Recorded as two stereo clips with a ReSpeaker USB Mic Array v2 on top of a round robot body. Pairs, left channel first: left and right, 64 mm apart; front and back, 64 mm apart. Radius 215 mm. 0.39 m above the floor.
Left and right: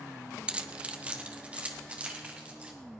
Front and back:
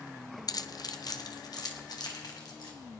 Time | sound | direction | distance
0.5 | keys jangling | 15° right | 0.8 m